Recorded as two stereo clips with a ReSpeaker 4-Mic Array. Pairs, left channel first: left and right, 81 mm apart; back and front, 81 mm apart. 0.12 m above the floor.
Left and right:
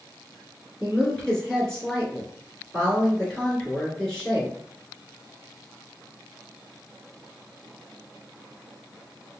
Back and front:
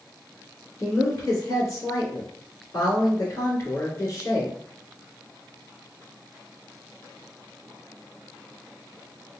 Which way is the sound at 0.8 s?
170° left.